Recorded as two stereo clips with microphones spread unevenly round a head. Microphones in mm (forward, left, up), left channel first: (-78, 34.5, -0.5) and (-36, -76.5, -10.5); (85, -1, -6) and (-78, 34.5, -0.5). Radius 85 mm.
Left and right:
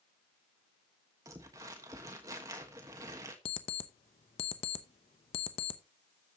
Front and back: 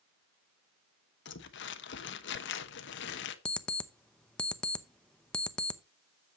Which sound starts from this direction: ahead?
Crumpling, at 1.2 s.